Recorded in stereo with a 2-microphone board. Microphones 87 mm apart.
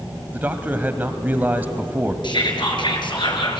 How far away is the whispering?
About 4.5 m.